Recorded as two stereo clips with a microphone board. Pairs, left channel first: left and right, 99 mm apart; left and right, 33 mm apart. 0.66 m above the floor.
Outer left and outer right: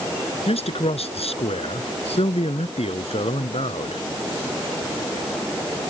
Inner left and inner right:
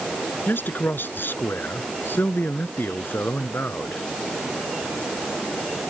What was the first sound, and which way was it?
A man speaking, 85° left.